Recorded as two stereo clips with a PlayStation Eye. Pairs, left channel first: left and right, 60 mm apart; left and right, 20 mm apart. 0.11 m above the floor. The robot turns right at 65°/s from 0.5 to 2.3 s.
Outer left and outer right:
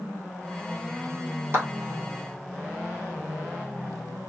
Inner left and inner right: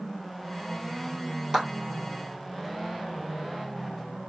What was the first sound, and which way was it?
A clap, 35° right (ahead or behind).